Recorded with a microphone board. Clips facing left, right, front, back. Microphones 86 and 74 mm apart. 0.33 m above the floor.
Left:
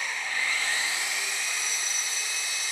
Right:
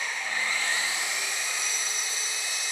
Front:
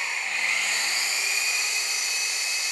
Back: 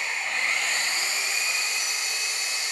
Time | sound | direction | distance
0.0 | an engine running | 150° right | 1.1 m